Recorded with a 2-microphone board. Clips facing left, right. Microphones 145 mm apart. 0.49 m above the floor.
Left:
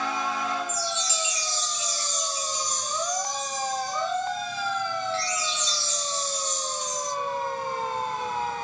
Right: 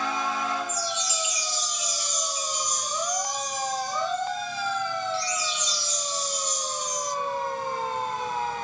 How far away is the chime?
About 2.5 m.